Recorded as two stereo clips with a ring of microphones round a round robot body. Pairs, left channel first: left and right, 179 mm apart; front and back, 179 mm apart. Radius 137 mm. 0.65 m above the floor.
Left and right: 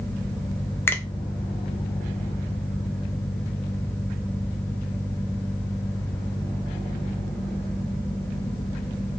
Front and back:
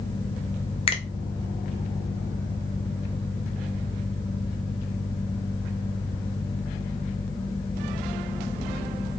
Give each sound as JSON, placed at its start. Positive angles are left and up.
{"t": 0.9, "sound": "a finger snap", "azimuth_deg": 20, "distance_m": 0.6}